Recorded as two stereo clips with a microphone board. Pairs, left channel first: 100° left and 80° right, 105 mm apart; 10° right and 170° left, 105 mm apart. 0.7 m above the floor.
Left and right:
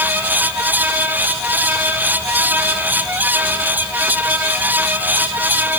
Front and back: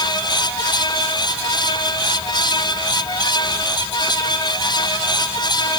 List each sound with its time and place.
Only background noise.